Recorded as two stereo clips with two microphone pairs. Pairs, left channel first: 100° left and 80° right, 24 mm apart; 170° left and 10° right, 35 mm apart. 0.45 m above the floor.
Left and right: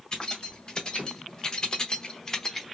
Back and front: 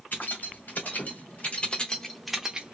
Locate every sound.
0.1 s keys jangling: 160° left, 1.3 m; by 2.7 s 30° left, 0.6 m